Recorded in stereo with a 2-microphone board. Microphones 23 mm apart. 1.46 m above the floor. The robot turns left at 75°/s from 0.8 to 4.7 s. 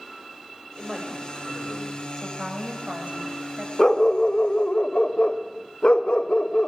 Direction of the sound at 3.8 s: 155° left.